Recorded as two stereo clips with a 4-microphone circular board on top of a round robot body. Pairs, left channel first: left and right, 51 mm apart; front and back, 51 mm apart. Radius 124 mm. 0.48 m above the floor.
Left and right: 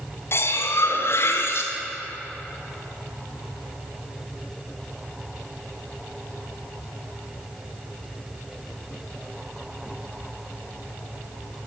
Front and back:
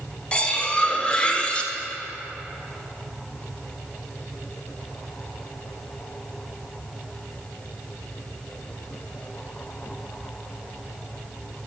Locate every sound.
0.3 s cutlery clinking: 65° left, 1.2 m